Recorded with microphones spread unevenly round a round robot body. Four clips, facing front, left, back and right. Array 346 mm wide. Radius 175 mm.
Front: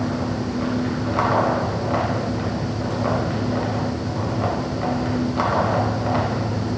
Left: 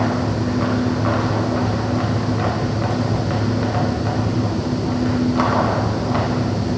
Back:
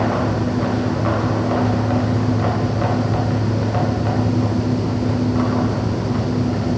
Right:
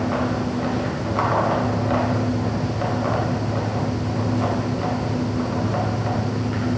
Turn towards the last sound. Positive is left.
No sound to turn to.